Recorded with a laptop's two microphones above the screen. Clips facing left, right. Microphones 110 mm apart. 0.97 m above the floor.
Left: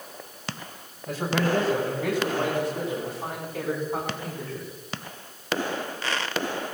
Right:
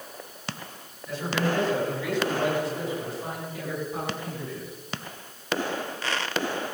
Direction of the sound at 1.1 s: 45° left (ahead or behind).